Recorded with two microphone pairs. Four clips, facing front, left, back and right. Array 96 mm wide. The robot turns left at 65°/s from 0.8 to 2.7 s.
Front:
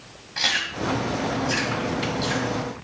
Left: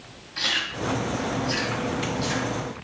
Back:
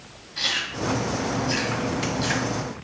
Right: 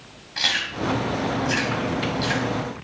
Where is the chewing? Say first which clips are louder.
Right 2 dB, front 2 dB; 45° right, 1.8 m; by 2.5 s 155° right, 1.8 m.